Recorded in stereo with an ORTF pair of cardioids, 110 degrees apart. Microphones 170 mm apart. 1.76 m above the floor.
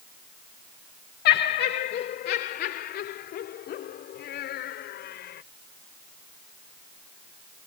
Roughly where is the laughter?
Ahead left.